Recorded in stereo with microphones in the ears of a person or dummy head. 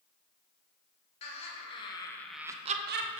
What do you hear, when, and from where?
1.2 s laughter: 45° left (ahead or behind), 1.6 m; by 3.2 s 65° right (ahead or behind), 0.9 m